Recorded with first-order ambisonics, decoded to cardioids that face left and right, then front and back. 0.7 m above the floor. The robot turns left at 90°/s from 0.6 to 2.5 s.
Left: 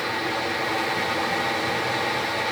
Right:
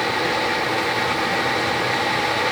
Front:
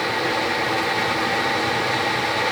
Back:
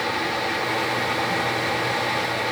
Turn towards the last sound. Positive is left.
No sound to turn to.